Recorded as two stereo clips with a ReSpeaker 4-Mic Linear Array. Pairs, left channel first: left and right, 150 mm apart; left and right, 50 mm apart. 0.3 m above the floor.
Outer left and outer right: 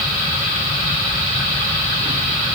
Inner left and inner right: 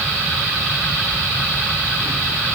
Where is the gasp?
I don't hear a gasp.